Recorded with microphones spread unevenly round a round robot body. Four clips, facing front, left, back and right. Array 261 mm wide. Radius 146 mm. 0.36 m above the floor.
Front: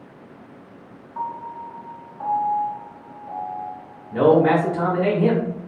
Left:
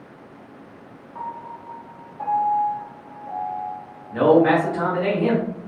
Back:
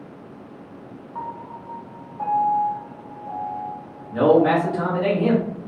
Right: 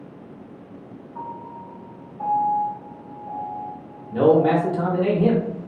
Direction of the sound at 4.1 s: 60° right.